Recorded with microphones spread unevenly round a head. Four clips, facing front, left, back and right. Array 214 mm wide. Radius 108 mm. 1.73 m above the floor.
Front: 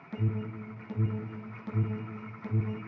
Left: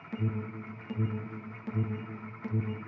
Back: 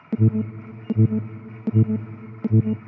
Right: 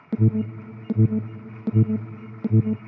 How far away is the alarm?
About 0.6 m.